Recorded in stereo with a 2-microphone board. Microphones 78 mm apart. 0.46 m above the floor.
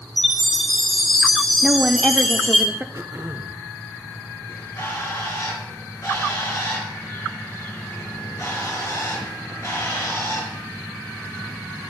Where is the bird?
40° left (ahead or behind), 4 m.